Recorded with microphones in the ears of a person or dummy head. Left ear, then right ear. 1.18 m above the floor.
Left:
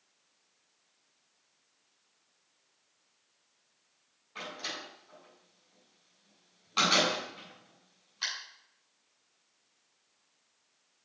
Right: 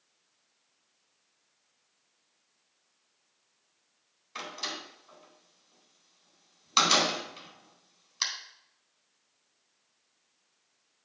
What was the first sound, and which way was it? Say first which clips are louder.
A door slam: right 2 dB; 65° right (ahead or behind).